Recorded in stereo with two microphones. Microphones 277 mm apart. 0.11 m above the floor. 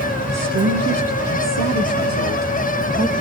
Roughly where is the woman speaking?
Right.